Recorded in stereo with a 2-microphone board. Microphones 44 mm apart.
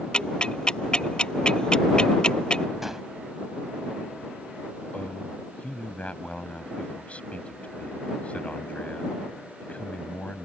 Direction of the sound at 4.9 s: 35° left (ahead or behind).